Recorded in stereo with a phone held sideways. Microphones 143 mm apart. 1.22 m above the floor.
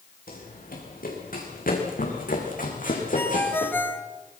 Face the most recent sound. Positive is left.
turn(degrees=15)  # may be behind; listen again after turning